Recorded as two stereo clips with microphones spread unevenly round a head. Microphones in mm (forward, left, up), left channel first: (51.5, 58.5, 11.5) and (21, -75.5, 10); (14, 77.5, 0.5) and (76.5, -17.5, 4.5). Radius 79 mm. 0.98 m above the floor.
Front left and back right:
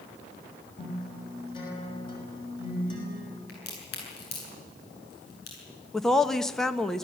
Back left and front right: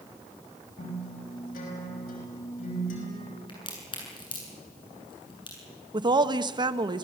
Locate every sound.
0.8 s a guitar: 140° left, 5.5 m
3.5 s a crack: 80° left, 8.5 m
5.9 s a woman speaking: 10° right, 1.3 m